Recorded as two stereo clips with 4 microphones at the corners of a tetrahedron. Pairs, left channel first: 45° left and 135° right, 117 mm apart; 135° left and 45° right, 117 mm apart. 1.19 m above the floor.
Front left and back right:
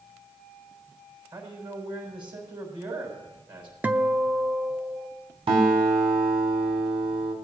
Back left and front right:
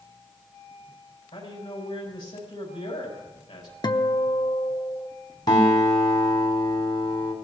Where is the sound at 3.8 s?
155° left, 0.6 m.